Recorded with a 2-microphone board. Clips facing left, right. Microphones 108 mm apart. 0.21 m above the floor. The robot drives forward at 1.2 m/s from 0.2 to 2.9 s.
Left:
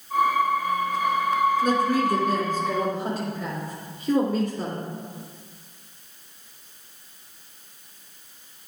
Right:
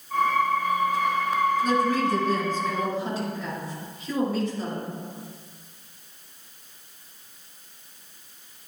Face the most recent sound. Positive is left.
turn(degrees=55)  # may be behind; listen again after turning